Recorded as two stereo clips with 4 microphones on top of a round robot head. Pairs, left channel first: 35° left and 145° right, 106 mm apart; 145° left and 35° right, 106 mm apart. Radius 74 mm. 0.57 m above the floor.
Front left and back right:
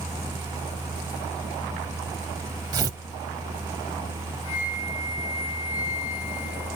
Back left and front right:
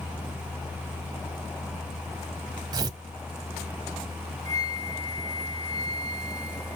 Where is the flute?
85° left, 4.5 m.